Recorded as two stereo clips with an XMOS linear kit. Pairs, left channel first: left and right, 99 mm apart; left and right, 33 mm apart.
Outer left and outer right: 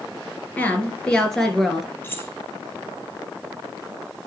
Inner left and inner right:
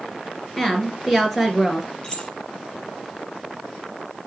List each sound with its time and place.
0.6 s a woman speaking: 15° left (ahead or behind), 2.5 m; by 1.9 s 5° right (ahead or behind), 2.5 m
2.0 s keys jangling: 20° left (ahead or behind), 2 m